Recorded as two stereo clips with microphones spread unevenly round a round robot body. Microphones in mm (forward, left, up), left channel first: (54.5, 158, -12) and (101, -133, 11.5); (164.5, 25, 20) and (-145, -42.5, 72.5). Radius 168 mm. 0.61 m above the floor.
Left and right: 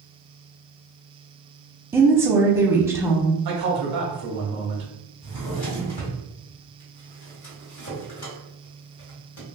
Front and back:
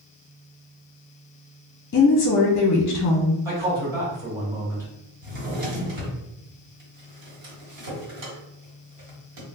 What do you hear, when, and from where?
1.9 s a woman speaking: 5° left, 0.8 m
3.5 s a man speaking: 85° right, 1.8 m
5.2 s a drawer: 155° left, 1.5 m